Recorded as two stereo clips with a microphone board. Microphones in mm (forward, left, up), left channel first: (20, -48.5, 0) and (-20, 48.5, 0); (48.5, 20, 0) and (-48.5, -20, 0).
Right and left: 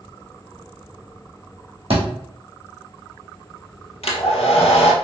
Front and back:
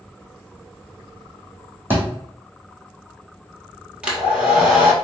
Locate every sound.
1.9 s a thud: 135° left, 2.5 m
4.0 s a hair dryer: 80° right, 1.1 m